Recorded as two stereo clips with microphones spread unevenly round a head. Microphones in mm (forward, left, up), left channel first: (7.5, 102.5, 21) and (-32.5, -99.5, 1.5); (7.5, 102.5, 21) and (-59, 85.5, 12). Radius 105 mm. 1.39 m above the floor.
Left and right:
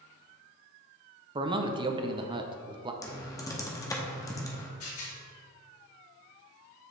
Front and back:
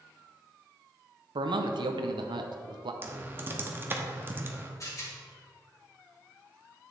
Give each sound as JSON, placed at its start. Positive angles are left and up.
{"t": 1.4, "sound": "a man speaking", "azimuth_deg": -170, "distance_m": 0.7}
{"t": 3.0, "sound": "typing on a keyboard", "azimuth_deg": 140, "distance_m": 1.0}
{"t": 4.8, "sound": "a rattle", "azimuth_deg": 50, "distance_m": 2.5}